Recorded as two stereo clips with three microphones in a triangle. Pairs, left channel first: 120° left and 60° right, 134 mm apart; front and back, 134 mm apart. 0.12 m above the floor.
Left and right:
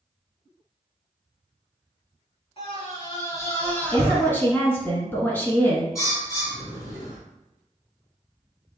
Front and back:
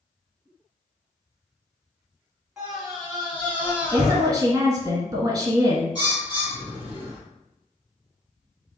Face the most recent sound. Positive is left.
turn(degrees=55)